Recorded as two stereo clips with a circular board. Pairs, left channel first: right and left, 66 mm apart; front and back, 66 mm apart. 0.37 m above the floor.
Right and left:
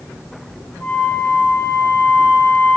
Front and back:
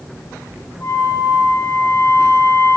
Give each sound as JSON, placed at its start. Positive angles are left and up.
{"t": 0.8, "sound": "a flute", "azimuth_deg": -15, "distance_m": 8.5}